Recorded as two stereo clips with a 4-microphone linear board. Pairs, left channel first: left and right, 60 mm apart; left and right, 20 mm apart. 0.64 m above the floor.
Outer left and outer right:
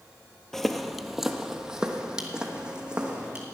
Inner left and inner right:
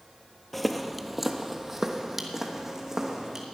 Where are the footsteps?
5° left (ahead or behind), 0.6 m; by 3.5 s 15° right (ahead or behind), 1.9 m.